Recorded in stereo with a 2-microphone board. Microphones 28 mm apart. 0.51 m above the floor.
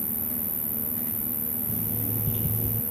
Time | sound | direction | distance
0.0 | an insect | 85° right | ?
1.7 | an alarm clock | centre (ahead or behind) | ?